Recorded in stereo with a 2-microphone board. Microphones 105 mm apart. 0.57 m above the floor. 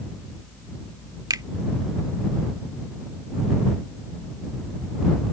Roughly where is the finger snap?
Right.